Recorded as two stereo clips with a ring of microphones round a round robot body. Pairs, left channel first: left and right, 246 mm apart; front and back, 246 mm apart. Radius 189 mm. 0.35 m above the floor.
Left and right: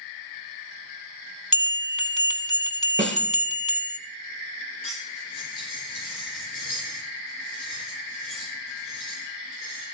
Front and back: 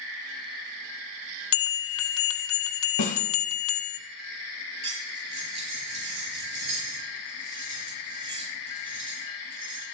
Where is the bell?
30° left, 1.7 m.